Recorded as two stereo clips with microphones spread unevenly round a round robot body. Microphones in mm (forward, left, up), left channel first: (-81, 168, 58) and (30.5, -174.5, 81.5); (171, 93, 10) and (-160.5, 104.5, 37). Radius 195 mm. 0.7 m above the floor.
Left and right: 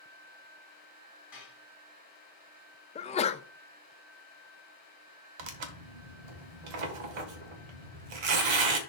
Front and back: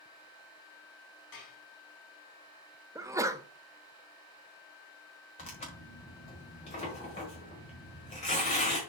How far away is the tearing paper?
About 1.2 m.